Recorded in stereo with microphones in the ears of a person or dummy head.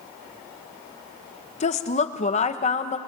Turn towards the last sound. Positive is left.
turn(degrees=30)  # may be behind; listen again after turning